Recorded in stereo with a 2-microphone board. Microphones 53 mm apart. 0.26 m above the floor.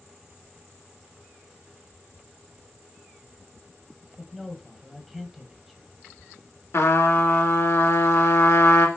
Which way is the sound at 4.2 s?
Centre (ahead or behind).